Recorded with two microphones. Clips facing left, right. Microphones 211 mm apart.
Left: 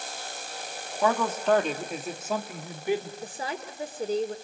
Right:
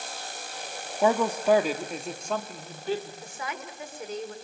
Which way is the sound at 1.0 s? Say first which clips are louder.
Right 2 dB; 20° right (ahead or behind).